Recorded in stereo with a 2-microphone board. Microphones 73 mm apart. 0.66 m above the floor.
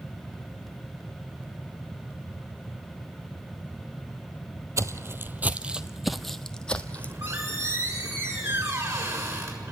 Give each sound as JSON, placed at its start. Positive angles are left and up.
{"t": 4.8, "sound": "footsteps", "side_deg": -40, "distance_m": 0.9}
{"t": 7.0, "sound": "a squeak", "side_deg": -40, "distance_m": 6.5}